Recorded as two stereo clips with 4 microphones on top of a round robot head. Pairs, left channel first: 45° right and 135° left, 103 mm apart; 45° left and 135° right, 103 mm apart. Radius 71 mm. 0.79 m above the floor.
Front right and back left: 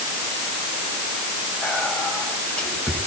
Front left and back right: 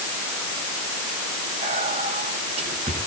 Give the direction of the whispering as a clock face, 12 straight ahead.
4 o'clock.